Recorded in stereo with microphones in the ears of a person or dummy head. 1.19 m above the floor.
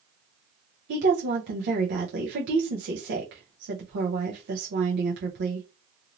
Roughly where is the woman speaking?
Right.